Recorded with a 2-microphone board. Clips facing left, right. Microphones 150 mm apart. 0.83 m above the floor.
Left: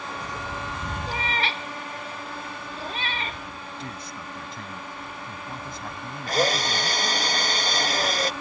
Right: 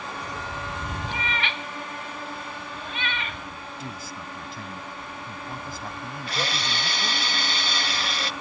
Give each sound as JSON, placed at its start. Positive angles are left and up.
{"t": 1.1, "sound": "a cat meowing", "side_deg": 35}
{"t": 3.5, "sound": "a man speaking", "side_deg": -5}
{"t": 6.3, "sound": "a drill", "side_deg": 45}